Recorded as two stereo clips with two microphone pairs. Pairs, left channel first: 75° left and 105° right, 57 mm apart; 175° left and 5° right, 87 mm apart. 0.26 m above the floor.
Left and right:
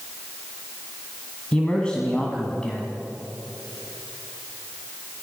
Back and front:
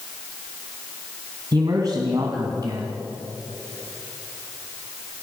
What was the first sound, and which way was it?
A man speaking, 5° left.